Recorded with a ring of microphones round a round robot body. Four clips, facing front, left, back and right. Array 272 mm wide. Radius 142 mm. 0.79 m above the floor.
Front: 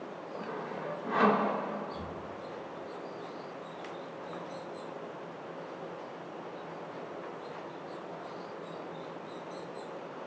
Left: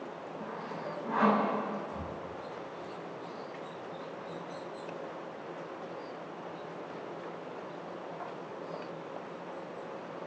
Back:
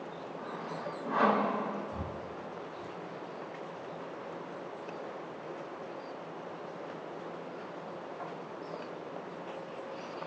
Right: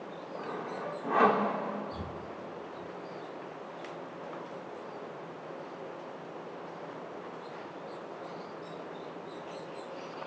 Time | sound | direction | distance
0.4 | sawing | 80° right | 2 m
1.9 | breathing | 140° right | 0.8 m